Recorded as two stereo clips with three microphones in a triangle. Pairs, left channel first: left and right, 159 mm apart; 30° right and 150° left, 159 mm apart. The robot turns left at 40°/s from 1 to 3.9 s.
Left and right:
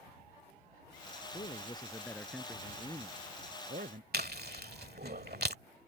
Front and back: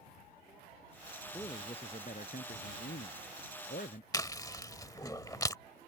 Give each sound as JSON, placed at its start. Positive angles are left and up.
{"t": 1.3, "sound": "a man speaking", "azimuth_deg": 40}
{"t": 4.1, "sound": "chewing", "azimuth_deg": -100}